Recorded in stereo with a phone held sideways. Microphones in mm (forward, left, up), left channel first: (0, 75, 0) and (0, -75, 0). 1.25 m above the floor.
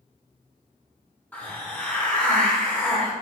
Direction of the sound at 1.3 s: 10° left (ahead or behind).